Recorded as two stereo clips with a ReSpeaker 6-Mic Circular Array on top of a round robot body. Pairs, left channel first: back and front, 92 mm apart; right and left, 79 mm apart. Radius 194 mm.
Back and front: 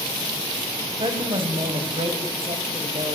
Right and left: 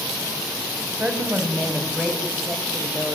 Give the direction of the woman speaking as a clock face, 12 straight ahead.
12 o'clock.